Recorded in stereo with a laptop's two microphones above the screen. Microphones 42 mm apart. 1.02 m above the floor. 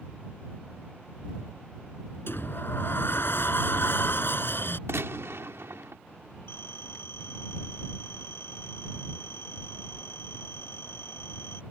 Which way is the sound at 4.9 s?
85° right.